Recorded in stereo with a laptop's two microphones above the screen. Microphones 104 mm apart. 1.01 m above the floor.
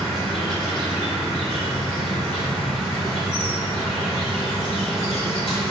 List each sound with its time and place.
0.0 s an insect: centre (ahead or behind), 1.3 m